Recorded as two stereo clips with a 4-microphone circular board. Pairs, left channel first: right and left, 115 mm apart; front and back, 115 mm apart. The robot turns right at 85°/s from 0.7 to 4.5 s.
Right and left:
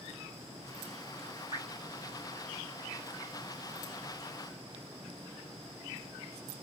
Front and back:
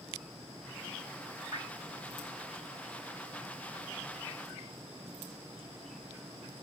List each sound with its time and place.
1.5 s dripping: 135° left, 1.8 m; by 1.7 s 150° left, 1.8 m